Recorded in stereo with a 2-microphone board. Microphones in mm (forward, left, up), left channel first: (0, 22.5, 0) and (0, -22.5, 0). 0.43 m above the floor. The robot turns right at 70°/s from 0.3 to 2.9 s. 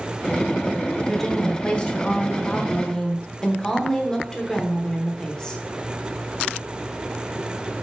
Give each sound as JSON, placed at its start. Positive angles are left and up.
{"t": 1.0, "sound": "a woman speaking", "side_deg": 5, "distance_m": 0.8}